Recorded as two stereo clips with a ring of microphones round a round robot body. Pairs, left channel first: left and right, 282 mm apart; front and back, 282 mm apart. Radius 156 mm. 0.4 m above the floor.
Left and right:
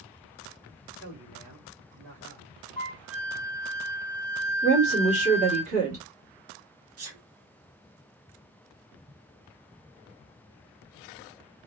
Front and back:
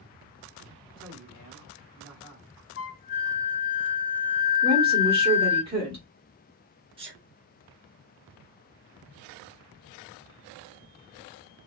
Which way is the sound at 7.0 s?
110° right.